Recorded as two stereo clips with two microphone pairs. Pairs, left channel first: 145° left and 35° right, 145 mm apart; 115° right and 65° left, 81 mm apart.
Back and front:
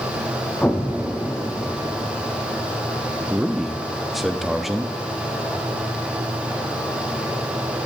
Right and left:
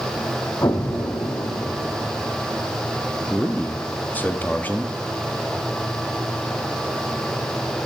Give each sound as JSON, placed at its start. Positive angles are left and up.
{"t": 0.6, "sound": "an explosion", "azimuth_deg": -135, "distance_m": 0.8}
{"t": 3.3, "sound": "a man speaking", "azimuth_deg": -125, "distance_m": 0.7}